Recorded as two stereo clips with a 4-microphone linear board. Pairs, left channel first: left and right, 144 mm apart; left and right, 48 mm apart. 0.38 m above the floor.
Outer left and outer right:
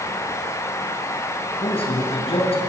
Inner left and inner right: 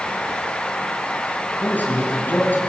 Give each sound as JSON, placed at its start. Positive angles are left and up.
{"t": 1.6, "sound": "a man speaking", "side_deg": 40, "distance_m": 5.5}